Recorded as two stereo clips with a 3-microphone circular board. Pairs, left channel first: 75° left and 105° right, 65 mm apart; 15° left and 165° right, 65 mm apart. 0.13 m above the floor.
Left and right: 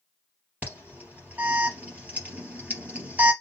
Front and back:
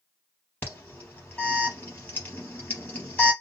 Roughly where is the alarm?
Ahead right.